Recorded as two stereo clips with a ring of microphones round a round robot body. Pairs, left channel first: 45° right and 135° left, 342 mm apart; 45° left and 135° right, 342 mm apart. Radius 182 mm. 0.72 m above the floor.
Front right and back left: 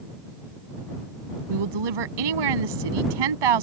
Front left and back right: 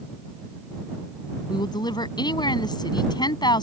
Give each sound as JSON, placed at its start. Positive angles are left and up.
{"t": 1.5, "sound": "a woman speaking", "azimuth_deg": 125}